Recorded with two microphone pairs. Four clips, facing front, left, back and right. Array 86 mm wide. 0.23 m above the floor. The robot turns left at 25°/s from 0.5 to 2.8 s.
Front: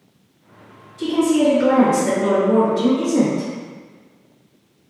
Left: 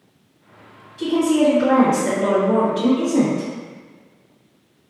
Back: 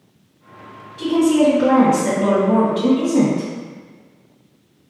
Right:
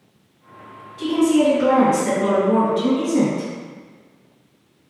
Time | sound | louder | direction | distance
1.0 | a woman speaking | even, back 2 dB | 150° right | 1.6 m